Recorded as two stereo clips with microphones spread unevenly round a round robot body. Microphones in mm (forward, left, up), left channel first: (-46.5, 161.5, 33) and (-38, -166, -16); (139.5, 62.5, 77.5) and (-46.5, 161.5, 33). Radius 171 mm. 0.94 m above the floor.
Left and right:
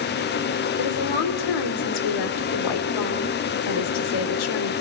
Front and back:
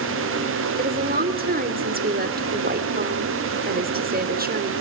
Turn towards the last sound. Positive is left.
turn(degrees=105)